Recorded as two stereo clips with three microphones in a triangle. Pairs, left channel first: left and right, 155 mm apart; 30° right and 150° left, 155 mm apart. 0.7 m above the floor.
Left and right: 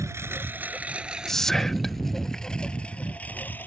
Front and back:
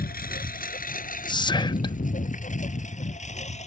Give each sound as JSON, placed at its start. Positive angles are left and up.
{"t": 0.0, "sound": "a lawn mower", "azimuth_deg": -20}
{"t": 1.3, "sound": "whispering", "azimuth_deg": 5}